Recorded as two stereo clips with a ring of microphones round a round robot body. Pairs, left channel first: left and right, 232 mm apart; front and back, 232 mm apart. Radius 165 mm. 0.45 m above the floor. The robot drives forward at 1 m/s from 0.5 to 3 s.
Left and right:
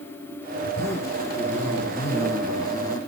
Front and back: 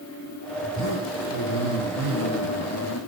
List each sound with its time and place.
0.6 s a zipper: 10° left, 9 m; by 3.0 s 15° left, 6.5 m